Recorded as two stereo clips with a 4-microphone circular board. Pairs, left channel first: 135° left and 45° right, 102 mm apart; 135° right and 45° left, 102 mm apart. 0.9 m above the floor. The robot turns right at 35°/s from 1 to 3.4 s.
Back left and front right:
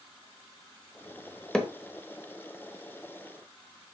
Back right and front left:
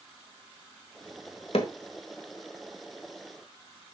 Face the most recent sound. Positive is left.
turn(degrees=-75)